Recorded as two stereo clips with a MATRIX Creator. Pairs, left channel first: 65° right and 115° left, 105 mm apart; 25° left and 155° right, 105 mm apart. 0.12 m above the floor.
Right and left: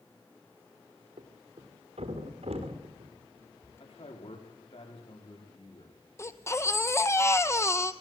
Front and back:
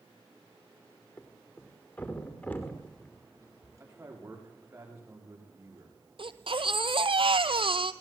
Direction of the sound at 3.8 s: 90° right.